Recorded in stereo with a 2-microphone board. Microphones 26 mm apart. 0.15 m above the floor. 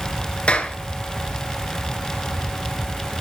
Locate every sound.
0.5 s a clap: 50° left (ahead or behind), 2 m